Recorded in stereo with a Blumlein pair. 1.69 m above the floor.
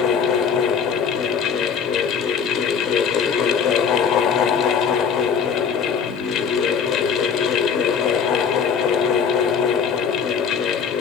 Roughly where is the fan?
Ahead left.